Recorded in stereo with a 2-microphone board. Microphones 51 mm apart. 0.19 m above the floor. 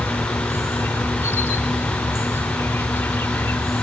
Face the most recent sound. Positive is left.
turn(degrees=55)  # may be behind; listen again after turning